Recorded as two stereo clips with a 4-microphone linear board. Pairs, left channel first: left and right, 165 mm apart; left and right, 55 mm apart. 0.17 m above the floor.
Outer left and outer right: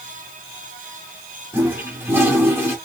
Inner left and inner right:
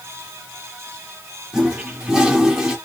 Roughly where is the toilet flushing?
Centre.